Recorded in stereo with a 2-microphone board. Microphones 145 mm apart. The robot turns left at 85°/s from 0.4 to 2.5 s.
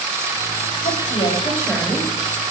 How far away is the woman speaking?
About 2.5 m.